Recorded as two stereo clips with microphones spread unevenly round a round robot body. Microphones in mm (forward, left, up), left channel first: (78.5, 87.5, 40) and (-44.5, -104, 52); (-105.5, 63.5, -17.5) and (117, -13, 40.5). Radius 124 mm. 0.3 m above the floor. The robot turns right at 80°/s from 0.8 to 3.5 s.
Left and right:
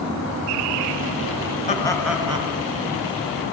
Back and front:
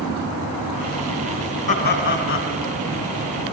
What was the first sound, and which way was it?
Laughter, 115° left.